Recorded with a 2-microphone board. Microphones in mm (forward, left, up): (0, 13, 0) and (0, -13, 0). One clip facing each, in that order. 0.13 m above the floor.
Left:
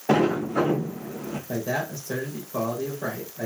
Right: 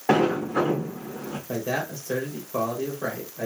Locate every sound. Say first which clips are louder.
0.1 s a sliding door: even; 55° right (ahead or behind), 2.5 m
1.5 s a man speaking: even; 45° right (ahead or behind), 3 m